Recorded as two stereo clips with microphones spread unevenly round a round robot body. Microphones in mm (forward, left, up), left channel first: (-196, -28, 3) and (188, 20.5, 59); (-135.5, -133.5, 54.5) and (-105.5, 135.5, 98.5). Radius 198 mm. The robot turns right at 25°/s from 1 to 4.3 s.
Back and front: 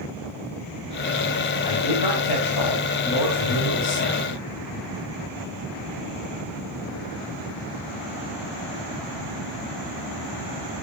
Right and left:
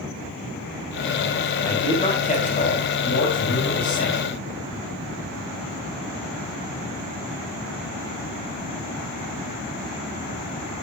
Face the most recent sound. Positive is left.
turn(degrees=-105)